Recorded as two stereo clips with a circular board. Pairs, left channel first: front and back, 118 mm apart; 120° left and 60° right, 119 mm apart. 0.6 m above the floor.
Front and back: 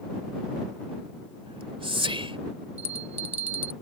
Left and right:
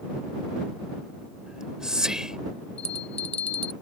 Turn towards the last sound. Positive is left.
turn(degrees=155)